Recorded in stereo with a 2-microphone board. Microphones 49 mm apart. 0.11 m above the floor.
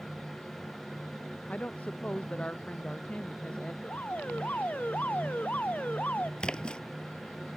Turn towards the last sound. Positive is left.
turn(degrees=20)  # may be behind; listen again after turning